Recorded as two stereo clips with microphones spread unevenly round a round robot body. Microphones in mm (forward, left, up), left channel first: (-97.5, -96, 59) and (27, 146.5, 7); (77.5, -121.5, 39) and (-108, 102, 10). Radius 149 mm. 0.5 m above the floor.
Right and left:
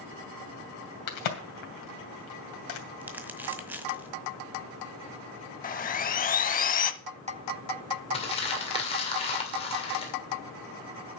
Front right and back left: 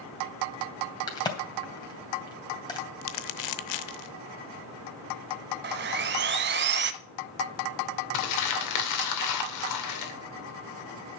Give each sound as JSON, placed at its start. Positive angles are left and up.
{"t": 1.1, "sound": "a crack", "azimuth_deg": -125, "distance_m": 3.0}
{"t": 3.0, "sound": "crumpling", "azimuth_deg": -20, "distance_m": 0.7}
{"t": 5.6, "sound": "sawing", "azimuth_deg": -175, "distance_m": 0.8}
{"t": 8.1, "sound": "crumpling", "azimuth_deg": -40, "distance_m": 2.5}